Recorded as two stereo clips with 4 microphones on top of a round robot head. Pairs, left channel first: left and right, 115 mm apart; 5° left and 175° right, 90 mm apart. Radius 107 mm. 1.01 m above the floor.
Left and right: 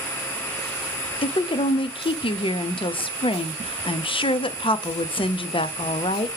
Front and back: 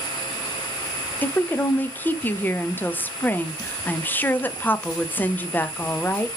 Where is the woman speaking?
70° left, 0.6 m.